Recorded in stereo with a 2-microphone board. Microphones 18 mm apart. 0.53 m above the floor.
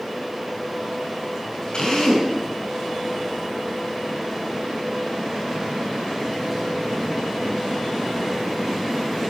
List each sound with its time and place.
1.7 s a drill: 50° left (ahead or behind), 7 m